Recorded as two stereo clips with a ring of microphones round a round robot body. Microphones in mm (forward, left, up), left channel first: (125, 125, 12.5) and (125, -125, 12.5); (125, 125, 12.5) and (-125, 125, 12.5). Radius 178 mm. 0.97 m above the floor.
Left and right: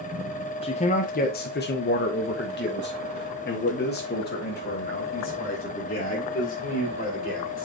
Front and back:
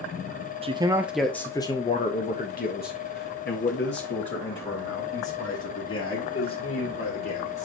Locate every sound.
0.6 s a man speaking: 135° left, 0.7 m; by 7.6 s 35° left, 4 m